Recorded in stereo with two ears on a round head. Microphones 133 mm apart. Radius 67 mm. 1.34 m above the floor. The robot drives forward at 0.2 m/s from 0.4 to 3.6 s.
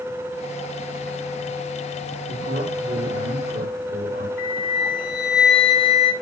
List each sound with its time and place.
2.3 s a man speaking: 45° right (ahead or behind), 3 m
4.4 s a flute: 75° left (ahead or behind), 1.1 m